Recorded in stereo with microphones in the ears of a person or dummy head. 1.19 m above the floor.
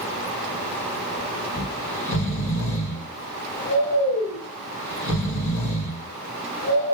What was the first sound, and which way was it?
Snoring, 55° left (ahead or behind).